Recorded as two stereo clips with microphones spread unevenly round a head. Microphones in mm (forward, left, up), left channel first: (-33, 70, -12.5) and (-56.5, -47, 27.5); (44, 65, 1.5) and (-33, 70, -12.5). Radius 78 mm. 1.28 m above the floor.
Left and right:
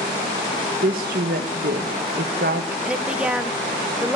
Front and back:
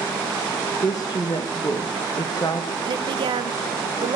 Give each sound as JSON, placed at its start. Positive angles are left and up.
{"t": 0.8, "sound": "a woman speaking", "azimuth_deg": -70, "distance_m": 1.2}
{"t": 2.9, "sound": "a woman speaking", "azimuth_deg": 170, "distance_m": 0.9}